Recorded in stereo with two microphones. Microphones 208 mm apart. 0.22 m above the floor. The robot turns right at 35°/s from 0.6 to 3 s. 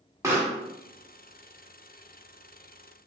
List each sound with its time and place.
0.2 s a pop: 15° right (ahead or behind), 1.0 m